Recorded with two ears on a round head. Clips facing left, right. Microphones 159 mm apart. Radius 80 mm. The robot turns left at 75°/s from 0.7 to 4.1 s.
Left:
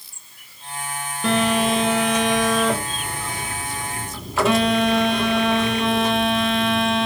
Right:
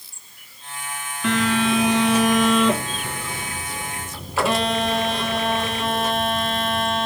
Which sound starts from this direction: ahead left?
A phone buzzing, at 1.2 s.